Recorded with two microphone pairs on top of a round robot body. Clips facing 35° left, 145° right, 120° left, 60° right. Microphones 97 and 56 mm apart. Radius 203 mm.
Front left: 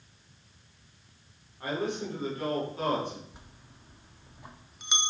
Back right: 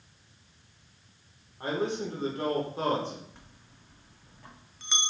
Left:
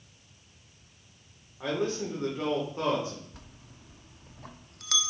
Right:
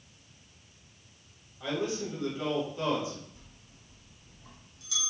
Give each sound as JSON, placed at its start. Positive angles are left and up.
{"t": 1.6, "sound": "a man speaking", "azimuth_deg": 160, "distance_m": 2.5}
{"t": 3.3, "sound": "a bell", "azimuth_deg": 105, "distance_m": 0.5}